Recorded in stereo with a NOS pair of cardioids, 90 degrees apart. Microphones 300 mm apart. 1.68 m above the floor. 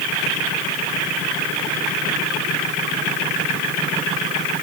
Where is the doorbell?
No doorbell in this recording.